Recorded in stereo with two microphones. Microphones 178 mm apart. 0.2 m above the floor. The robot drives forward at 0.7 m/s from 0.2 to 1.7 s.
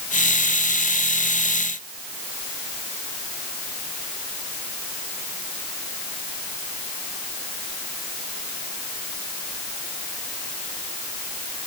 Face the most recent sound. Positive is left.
No sound to turn to.